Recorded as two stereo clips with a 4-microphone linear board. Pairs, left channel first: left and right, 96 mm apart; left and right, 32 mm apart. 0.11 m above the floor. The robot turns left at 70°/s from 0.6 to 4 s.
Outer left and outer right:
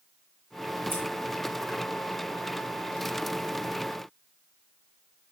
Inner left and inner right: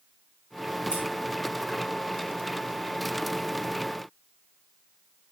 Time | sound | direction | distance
0.9 | scissors | 20° right (ahead or behind) | 5 m